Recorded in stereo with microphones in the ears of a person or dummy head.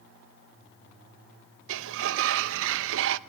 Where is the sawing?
No sawing in this recording.